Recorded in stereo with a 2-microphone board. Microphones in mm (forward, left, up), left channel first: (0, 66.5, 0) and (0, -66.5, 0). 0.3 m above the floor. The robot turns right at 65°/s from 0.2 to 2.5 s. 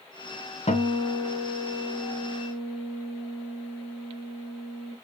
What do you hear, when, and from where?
0.7 s a guitar: 75° left, 1.3 m; by 4.9 s 170° right, 1.3 m